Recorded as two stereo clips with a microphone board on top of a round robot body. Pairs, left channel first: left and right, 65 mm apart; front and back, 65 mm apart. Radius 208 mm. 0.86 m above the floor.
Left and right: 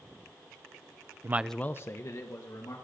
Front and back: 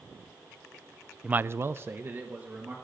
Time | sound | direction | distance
1.2 | a man speaking | 110° right | 0.5 m